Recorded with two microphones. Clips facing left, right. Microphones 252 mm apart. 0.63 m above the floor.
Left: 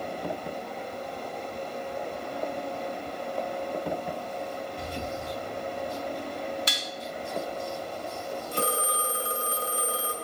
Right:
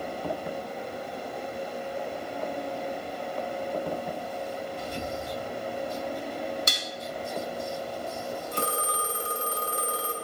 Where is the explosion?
60° left (ahead or behind), 1.9 m.